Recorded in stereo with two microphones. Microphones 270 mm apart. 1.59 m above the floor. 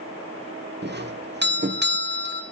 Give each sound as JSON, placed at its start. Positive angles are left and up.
{"t": 0.8, "sound": "a doorbell", "side_deg": -40, "distance_m": 1.7}